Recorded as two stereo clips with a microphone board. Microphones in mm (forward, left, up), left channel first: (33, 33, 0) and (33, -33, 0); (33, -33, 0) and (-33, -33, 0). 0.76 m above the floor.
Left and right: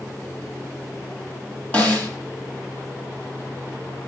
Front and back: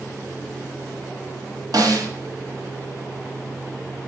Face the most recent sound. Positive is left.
turn(degrees=155)